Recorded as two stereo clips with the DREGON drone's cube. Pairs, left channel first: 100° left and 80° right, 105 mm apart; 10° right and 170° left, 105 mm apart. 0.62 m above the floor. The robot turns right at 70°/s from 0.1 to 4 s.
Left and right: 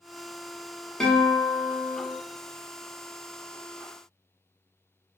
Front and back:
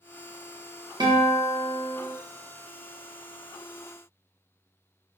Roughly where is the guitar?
Behind.